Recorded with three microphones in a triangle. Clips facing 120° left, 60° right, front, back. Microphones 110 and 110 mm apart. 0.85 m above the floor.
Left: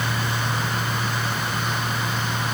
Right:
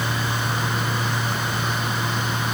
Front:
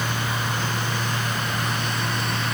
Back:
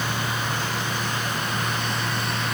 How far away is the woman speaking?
No woman speaking in this recording.